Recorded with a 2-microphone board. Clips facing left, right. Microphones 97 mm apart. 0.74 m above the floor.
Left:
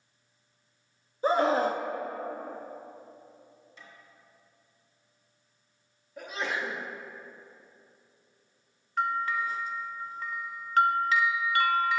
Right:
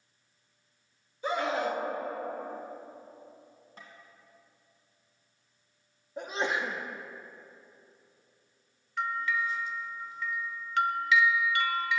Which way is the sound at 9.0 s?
40° left (ahead or behind).